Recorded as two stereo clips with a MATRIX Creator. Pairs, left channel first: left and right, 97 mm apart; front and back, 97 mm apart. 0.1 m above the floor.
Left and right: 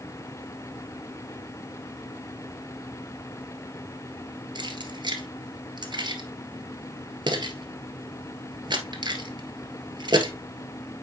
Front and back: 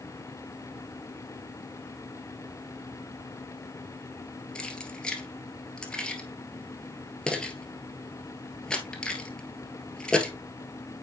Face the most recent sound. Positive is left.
turn(degrees=-80)